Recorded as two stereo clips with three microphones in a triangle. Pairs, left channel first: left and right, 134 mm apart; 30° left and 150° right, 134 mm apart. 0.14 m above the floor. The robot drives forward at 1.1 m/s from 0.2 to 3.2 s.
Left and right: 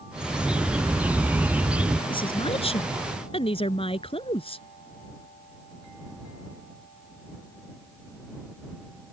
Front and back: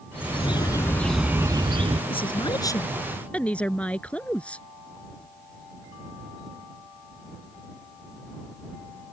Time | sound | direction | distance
0.1 | a bird | 5° right | ?
2.1 | a woman speaking | 55° left | ?